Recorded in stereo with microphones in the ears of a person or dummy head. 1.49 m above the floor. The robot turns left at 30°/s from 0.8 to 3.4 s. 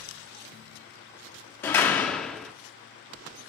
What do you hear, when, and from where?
1.6 s a door slam: 15° left (ahead or behind), 0.5 m; by 2.5 s centre (ahead or behind), 0.5 m